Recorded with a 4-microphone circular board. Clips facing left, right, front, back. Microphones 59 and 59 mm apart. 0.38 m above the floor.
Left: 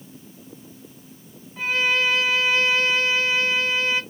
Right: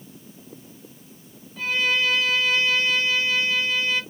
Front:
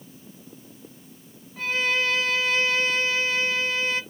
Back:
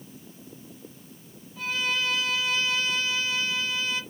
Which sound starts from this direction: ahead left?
A violin, at 1.6 s.